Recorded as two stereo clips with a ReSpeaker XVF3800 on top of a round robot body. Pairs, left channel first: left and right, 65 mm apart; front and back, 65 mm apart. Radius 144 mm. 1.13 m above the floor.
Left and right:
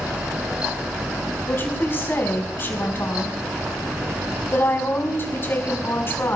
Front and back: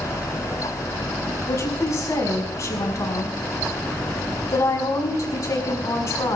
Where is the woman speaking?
35° left, 5.5 m.